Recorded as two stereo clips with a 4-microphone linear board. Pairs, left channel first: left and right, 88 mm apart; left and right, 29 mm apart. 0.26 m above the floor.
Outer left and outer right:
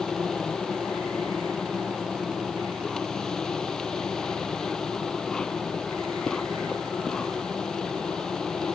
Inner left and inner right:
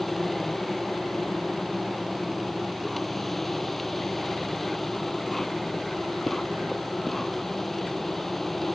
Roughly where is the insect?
Centre.